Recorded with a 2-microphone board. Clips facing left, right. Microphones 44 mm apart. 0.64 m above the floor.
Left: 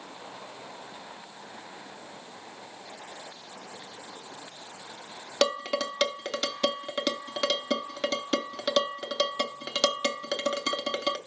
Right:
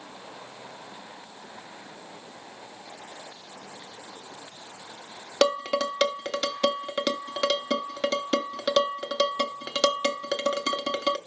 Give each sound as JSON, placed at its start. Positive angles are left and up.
{"t": 5.4, "sound": "dishes clattering", "side_deg": -10, "distance_m": 0.9}